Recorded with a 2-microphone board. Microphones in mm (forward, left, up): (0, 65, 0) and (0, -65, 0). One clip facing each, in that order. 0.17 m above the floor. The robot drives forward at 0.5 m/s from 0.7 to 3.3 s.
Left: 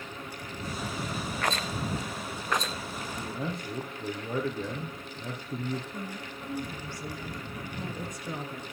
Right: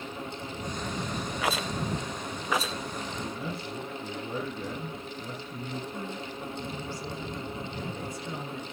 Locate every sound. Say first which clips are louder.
1.4 s a rattle: right 2 dB; 5° right (ahead or behind), 0.7 m
3.0 s a man speaking: even; 45° left (ahead or behind), 4.5 m; by 5.8 s 50° left (ahead or behind), 4.5 m
5.9 s a woman speaking: right 2 dB; 20° left (ahead or behind), 2.5 m